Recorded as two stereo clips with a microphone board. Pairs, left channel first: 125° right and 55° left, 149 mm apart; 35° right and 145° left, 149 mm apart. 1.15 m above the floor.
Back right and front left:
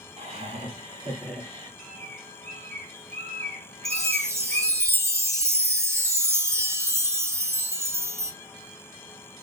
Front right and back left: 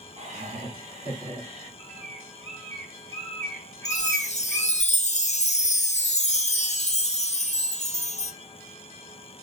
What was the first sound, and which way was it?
Laughter, 100° left.